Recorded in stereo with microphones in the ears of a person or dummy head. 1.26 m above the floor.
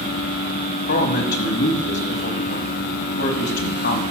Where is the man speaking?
50° left (ahead or behind), 1.3 m.